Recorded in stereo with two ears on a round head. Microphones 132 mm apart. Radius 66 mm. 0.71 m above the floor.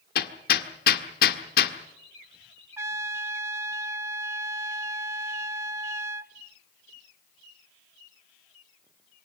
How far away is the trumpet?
About 0.6 m.